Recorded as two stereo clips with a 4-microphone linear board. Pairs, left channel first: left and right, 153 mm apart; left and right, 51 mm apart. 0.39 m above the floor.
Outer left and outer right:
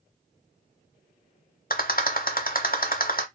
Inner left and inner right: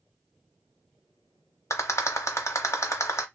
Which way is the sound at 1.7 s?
70° left (ahead or behind).